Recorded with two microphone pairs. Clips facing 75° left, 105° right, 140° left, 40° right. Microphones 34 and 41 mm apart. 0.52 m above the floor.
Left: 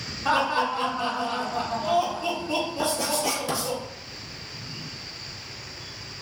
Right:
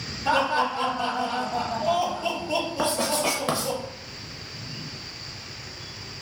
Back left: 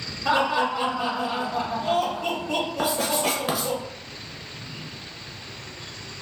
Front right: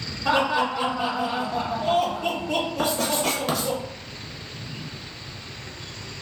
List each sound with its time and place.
0.2 s laughter: 50° left, 1.6 m
2.8 s writing: 145° right, 0.6 m